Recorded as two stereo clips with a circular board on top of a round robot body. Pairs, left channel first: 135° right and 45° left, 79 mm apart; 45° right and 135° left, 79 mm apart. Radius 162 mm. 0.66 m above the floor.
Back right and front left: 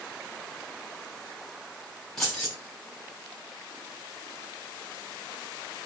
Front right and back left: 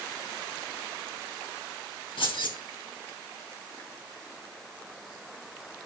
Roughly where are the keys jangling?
Ahead right.